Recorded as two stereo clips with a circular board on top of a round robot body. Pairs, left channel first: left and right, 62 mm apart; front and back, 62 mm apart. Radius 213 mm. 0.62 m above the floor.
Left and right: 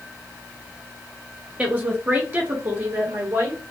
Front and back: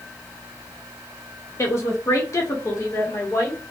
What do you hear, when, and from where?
1.6 s a woman speaking: 25° right, 0.9 m; by 3.6 s 45° right, 1.7 m